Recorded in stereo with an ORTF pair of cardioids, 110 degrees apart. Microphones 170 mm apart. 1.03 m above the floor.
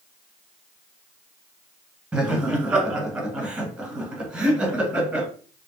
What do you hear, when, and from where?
2.1 s laughter: 5° right, 1.1 m